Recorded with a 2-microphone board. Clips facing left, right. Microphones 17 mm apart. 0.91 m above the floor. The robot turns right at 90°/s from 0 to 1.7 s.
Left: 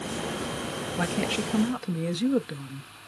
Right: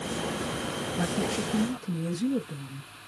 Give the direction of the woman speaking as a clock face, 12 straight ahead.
11 o'clock.